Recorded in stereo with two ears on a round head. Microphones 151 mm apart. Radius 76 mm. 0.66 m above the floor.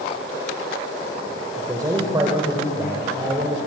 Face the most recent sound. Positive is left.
turn(degrees=-25)  # may be behind; listen again after turning